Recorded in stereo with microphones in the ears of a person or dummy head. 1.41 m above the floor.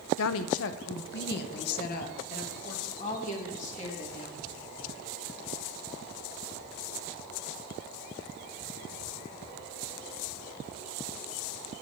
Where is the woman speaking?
85° left, 0.7 m; by 4.5 s 35° left (ahead or behind), 2.5 m.